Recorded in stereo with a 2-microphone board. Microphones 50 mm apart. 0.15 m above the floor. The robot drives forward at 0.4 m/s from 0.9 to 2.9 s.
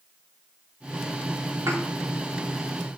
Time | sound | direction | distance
1.7 | a thud | 70° right (ahead or behind) | 5.5 m